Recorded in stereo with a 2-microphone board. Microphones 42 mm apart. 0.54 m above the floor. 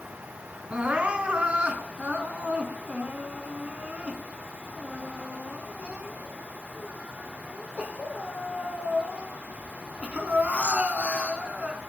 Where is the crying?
30° right (ahead or behind), 2.5 m.